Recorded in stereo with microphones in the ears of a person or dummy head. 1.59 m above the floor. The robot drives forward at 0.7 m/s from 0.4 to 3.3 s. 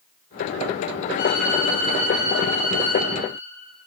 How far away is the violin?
About 0.8 m.